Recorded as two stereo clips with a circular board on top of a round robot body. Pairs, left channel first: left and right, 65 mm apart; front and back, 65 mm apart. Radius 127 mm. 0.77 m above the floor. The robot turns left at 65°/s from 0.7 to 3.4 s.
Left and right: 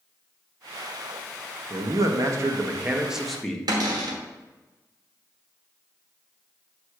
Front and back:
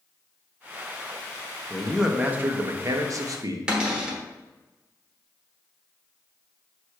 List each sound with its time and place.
1.7 s a man speaking: 80° right, 1.2 m; by 3.6 s 170° left, 1.2 m
3.7 s a cupboard door: 105° right, 1.1 m